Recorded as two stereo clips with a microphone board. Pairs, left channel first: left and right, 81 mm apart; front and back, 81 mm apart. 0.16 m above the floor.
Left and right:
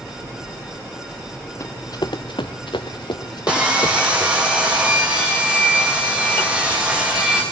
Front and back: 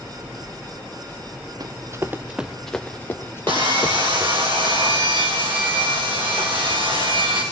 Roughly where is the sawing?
Behind.